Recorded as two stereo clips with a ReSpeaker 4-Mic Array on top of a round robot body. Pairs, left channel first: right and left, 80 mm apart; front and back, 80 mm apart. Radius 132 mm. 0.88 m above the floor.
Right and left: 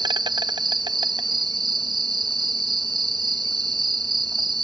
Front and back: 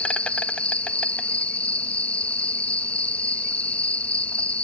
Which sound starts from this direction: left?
An insect, at 0.0 s.